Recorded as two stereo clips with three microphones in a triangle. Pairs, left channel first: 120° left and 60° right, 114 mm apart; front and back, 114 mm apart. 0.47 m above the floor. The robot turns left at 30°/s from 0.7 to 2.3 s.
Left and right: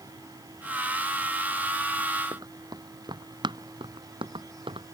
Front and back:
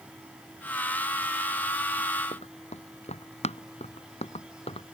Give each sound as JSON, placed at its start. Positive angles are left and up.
{"t": 2.3, "sound": "running footsteps", "azimuth_deg": -5}